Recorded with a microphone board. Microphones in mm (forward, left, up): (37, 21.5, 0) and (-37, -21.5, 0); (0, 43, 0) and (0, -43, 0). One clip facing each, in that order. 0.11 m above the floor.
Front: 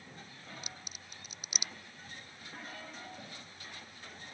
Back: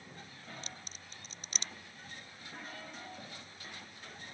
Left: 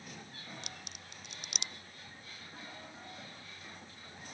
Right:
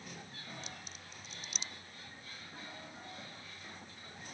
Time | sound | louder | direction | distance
0.6 | a crack | even, even | 110° left | ?